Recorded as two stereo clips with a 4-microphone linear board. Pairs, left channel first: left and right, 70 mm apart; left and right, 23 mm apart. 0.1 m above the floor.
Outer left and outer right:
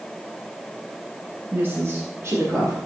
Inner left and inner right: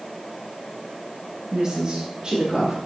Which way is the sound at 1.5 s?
25° right (ahead or behind).